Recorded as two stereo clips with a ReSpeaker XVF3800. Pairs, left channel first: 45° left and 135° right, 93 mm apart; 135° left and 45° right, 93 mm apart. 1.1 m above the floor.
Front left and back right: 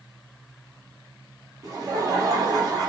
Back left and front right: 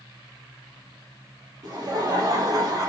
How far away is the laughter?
About 1.2 m.